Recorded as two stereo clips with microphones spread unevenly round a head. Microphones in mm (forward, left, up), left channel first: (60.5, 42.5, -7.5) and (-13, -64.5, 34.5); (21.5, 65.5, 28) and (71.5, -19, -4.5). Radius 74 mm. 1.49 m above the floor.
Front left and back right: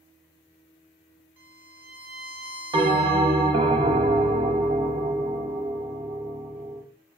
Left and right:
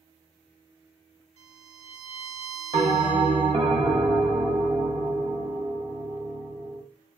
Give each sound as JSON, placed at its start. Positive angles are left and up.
{"t": 1.4, "sound": "a violin", "azimuth_deg": -55, "distance_m": 1.2}
{"t": 2.7, "sound": "a bell", "azimuth_deg": -120, "distance_m": 0.8}